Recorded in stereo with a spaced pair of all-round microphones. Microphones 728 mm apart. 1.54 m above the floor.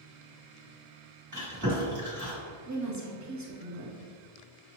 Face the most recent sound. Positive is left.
turn(degrees=-25)  # may be behind; listen again after turning